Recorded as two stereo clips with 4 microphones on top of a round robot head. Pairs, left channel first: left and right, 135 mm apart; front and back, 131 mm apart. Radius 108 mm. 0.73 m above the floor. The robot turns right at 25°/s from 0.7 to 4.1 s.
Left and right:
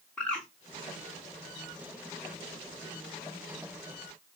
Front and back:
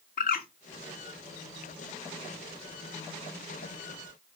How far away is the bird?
About 0.7 m.